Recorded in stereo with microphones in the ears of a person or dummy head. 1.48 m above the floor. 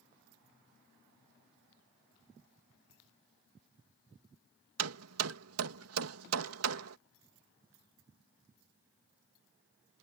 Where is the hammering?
85° right.